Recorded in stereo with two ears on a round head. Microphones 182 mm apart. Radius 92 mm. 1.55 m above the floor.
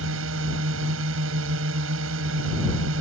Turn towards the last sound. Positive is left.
turn(degrees=-65)  # may be behind; listen again after turning